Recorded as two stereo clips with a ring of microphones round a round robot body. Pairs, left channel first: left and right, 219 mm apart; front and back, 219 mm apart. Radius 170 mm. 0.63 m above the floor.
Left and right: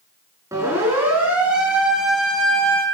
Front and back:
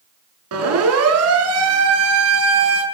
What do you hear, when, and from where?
0.5 s a siren: 170° right, 6.5 m; by 2.8 s 175° left, 4.5 m